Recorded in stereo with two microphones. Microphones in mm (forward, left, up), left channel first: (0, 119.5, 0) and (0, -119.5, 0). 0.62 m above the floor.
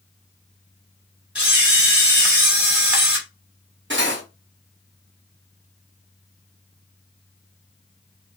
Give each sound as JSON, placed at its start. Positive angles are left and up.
{"t": 1.4, "sound": "a camera shutter", "side_deg": -5, "distance_m": 1.4}
{"t": 3.9, "sound": "cutlery clinking", "side_deg": -55, "distance_m": 0.8}